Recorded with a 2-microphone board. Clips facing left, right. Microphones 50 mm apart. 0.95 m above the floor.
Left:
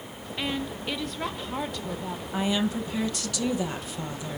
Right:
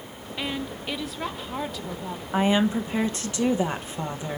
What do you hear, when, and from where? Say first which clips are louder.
0.4 s a woman speaking: even; 5° right (ahead or behind), 0.6 m
2.3 s a woman speaking: right 5 dB; 30° right (ahead or behind), 0.8 m